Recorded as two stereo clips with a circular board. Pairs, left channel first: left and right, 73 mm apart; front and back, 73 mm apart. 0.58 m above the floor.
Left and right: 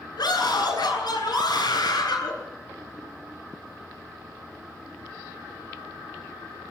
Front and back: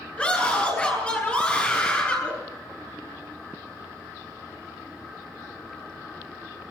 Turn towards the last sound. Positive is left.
turn(degrees=75)